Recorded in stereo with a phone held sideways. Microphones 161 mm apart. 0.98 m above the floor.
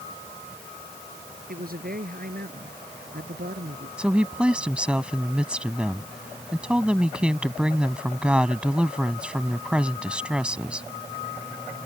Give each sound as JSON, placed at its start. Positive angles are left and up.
{"t": 1.5, "sound": "a man speaking", "side_deg": -65}
{"t": 4.0, "sound": "a woman speaking", "side_deg": -5}